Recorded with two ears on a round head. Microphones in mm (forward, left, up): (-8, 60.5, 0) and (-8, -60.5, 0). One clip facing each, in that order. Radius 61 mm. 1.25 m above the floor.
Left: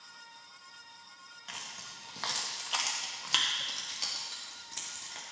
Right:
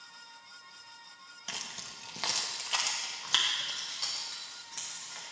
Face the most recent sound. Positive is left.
turn(degrees=30)  # may be behind; listen again after turning